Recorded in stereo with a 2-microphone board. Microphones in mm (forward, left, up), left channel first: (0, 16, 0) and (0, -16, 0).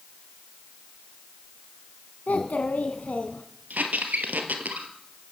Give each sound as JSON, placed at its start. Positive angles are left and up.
{"t": 2.3, "sound": "a child speaking", "side_deg": 60, "distance_m": 1.6}
{"t": 3.7, "sound": "a squeak", "side_deg": -65, "distance_m": 2.5}